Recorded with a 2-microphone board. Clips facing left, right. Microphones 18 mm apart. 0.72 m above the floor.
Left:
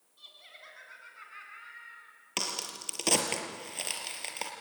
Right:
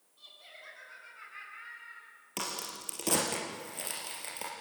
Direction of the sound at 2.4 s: 35° left (ahead or behind).